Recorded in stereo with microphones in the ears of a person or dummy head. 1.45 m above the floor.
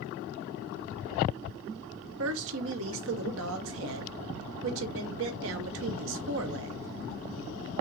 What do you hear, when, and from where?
2.2 s a woman speaking: 65° right (ahead or behind), 0.9 m